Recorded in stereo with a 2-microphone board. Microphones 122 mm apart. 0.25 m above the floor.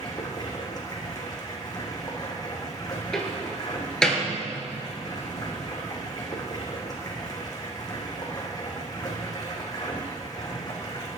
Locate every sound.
0.0 s running water: 35° left (ahead or behind), 2.5 m
3.1 s a door slam: 5° left (ahead or behind), 2.5 m